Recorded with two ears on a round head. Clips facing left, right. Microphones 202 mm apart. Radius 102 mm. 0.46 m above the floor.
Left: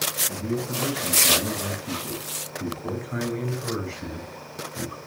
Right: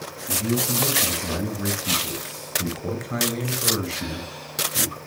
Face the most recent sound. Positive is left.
turn(degrees=-40)  # may be behind; listen again after turning